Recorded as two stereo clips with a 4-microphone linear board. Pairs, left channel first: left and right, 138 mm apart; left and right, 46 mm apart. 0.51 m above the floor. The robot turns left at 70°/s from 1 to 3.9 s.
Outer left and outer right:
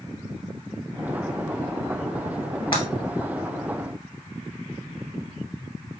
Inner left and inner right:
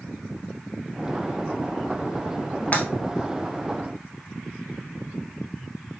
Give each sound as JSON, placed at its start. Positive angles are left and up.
{"t": 2.7, "sound": "breaking glass", "side_deg": 40, "distance_m": 1.8}